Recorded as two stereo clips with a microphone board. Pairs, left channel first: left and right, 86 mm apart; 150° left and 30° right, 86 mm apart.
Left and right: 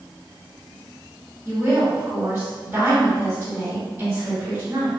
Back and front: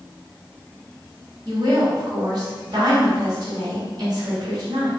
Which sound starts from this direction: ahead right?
A woman speaking, at 1.4 s.